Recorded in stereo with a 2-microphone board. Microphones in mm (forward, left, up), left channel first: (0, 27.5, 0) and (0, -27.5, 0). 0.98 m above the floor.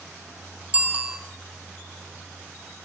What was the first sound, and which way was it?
A bicycle bell, 25° right (ahead or behind).